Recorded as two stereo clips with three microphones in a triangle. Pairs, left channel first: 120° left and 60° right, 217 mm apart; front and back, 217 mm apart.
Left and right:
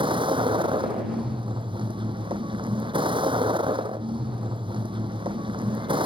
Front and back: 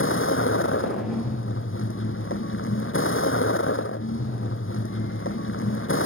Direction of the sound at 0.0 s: 5° left.